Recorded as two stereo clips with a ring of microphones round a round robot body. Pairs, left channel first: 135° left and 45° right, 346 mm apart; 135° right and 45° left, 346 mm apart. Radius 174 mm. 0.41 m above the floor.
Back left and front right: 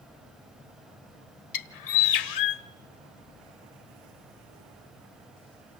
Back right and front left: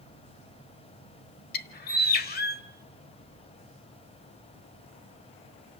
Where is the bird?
165° left, 1.1 m.